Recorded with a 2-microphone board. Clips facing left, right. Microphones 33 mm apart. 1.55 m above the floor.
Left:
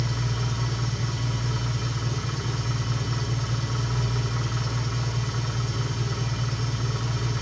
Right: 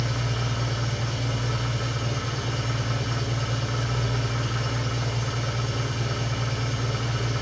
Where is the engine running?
75° right (ahead or behind), 3.5 m.